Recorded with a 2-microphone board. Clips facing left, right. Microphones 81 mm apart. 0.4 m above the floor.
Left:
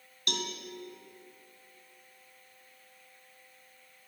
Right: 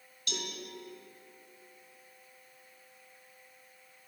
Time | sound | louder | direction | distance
0.3 | a cowbell | left 4 dB | 65° left (ahead or behind) | 2.5 m